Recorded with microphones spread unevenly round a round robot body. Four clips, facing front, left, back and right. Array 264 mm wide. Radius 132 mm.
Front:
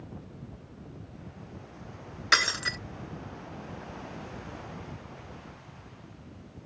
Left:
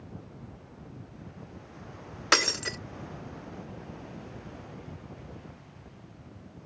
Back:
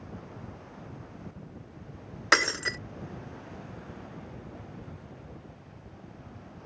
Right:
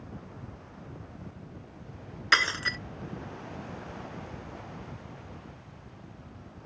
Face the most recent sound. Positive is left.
turn(degrees=140)